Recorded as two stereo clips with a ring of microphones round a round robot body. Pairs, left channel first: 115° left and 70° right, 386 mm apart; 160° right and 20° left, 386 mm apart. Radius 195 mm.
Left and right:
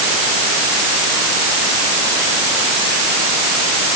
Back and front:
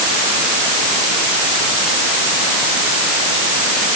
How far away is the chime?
No chime in this recording.